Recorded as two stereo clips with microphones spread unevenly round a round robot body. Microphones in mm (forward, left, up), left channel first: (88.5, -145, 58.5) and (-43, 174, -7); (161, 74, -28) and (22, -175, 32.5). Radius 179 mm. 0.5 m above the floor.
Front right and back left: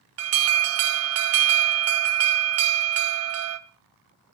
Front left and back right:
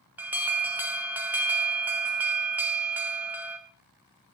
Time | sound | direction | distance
0.2 | an alarm | 150° left | 0.8 m